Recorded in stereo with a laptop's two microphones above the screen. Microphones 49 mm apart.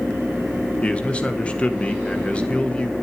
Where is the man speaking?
25° left (ahead or behind), 1.3 m.